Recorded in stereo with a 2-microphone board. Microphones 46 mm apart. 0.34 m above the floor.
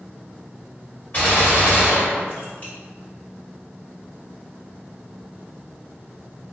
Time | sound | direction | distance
1.1 | a gunshot | 35° left (ahead or behind) | 1.7 m